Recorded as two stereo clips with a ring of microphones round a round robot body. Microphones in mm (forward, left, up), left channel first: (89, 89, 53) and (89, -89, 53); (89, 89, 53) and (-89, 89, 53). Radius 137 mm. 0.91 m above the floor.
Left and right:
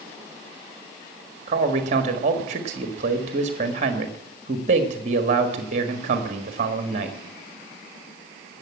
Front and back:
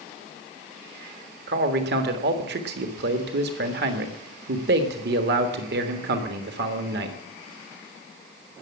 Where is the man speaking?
150° right, 1.6 m.